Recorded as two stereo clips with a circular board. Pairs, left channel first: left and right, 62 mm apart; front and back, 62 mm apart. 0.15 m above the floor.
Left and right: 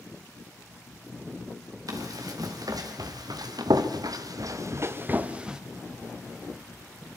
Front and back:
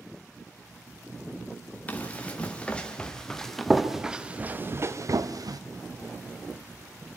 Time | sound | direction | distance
1.9 | running footsteps | 65° right | 4 m